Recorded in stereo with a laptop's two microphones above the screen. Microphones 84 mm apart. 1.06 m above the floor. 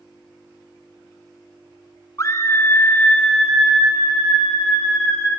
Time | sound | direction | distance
2.2 | a scream | 35° left (ahead or behind) | 0.8 m